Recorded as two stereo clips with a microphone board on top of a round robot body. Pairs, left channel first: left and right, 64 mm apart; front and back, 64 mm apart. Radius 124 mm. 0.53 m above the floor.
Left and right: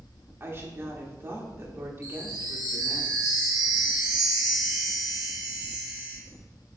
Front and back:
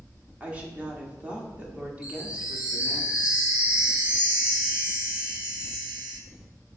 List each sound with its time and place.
0.4 s a woman speaking: 120° right, 1.7 m
2.0 s a chime: 105° right, 1.5 m